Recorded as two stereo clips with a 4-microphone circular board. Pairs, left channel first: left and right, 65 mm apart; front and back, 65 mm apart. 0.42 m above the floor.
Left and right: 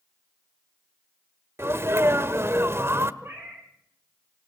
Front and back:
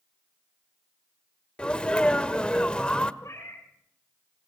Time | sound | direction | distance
1.6 | a sneeze | 70° right | 1.4 m
3.2 | a cat meowing | 40° right | 4.5 m